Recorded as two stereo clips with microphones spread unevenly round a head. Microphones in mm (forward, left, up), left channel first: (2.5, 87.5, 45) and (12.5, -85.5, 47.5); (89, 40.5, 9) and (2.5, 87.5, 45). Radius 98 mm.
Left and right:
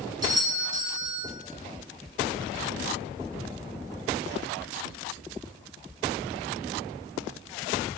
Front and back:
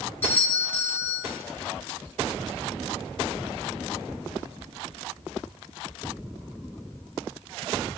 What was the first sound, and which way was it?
A doorbell, 35° right.